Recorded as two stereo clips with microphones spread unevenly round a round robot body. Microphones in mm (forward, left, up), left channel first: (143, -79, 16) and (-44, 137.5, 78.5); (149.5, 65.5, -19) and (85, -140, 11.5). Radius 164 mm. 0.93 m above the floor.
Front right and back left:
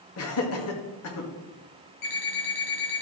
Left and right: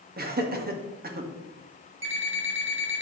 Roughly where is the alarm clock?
Right.